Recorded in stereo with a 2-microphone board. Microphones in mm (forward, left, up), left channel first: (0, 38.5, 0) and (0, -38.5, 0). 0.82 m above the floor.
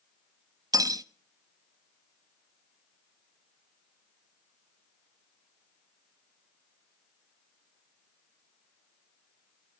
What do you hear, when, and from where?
0.7 s cutlery clinking: 50° right (ahead or behind), 0.5 m